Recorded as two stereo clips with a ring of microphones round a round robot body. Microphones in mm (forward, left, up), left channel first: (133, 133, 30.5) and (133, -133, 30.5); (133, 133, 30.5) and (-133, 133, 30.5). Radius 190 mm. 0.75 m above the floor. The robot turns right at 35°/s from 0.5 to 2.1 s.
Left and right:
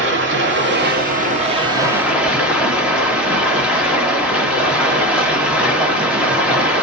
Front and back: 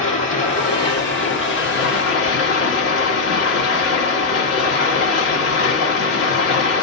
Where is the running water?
60° right, 1.1 m; by 6.8 s 5° right, 1.1 m.